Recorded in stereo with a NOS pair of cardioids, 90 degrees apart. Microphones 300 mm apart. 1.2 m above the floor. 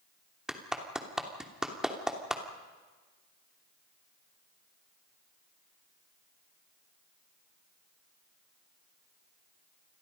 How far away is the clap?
About 3 m.